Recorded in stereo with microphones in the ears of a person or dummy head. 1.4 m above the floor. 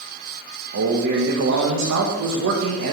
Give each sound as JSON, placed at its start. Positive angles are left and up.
{"t": 0.7, "sound": "a man speaking", "side_deg": -75, "distance_m": 1.0}